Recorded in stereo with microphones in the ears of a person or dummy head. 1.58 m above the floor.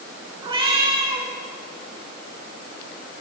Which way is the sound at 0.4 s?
25° right (ahead or behind).